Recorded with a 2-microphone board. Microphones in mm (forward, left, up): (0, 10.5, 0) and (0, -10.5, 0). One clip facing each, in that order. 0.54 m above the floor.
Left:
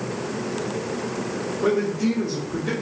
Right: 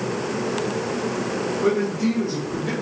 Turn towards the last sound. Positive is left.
turn(degrees=0)  # may be behind; listen again after turning